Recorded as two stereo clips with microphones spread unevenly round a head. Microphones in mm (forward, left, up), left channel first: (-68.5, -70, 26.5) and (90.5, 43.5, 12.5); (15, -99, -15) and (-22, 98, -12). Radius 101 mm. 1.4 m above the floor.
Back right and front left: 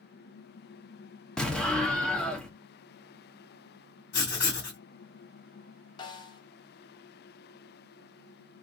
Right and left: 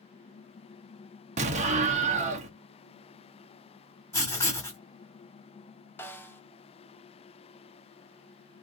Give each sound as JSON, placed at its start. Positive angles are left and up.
{"t": 1.4, "sound": "an explosion", "azimuth_deg": 135, "distance_m": 0.8}
{"t": 4.1, "sound": "writing", "azimuth_deg": -155, "distance_m": 1.8}
{"t": 6.0, "sound": "a snare drum", "azimuth_deg": -150, "distance_m": 0.5}